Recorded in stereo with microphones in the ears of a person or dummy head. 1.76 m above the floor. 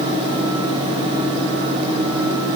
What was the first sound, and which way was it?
Only background noise.